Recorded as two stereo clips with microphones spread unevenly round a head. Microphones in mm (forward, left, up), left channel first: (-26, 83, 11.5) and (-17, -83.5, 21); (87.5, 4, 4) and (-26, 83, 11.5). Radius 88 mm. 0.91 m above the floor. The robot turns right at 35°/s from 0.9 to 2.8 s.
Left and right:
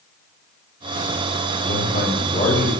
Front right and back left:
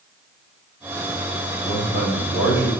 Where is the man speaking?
125° left, 6 m; by 2.7 s 165° left, 6 m.